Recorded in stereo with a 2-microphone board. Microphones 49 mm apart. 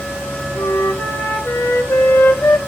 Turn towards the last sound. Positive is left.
turn(degrees=75)  # may be behind; listen again after turning